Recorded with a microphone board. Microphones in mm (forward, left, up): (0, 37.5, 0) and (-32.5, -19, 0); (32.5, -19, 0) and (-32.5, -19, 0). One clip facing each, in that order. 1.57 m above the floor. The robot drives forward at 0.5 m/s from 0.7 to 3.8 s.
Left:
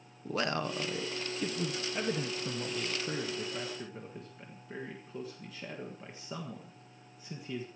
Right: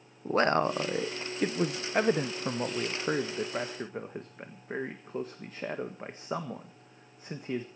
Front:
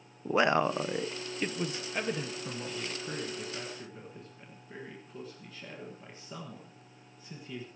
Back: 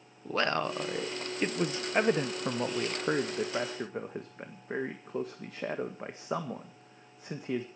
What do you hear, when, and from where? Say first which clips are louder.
0.2 s a man speaking: right 8 dB, front 4 dB; 75° right, 0.7 m; by 7.7 s 160° right, 1.5 m